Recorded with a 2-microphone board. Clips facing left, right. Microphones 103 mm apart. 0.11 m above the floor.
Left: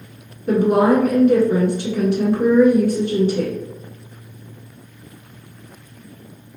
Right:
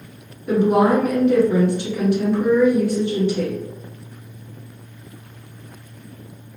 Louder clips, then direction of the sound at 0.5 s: Left 1 dB; 45° left (ahead or behind).